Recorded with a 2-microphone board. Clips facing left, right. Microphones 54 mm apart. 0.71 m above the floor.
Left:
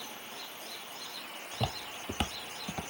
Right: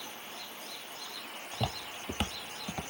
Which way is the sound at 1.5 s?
5° left (ahead or behind).